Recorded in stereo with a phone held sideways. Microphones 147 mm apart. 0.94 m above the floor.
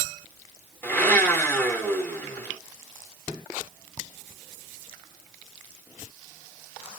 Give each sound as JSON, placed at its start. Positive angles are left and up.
{"t": 0.8, "sound": "a blender", "side_deg": 15, "distance_m": 1.1}